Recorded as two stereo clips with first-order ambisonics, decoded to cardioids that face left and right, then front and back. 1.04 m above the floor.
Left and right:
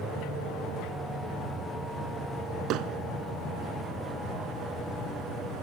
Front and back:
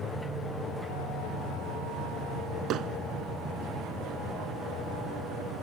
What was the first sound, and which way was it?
Hammering, 130° right.